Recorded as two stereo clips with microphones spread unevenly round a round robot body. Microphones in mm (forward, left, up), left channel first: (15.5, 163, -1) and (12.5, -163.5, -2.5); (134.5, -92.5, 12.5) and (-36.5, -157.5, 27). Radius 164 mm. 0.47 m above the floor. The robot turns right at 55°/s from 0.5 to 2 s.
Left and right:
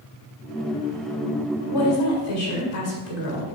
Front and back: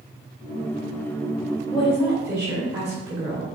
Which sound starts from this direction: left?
A woman speaking, at 1.7 s.